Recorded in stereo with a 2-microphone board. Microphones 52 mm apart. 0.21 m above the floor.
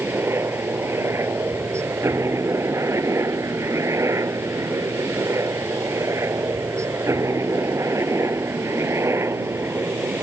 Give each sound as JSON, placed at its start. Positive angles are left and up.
{"t": 0.0, "sound": "a helicopter", "side_deg": -55}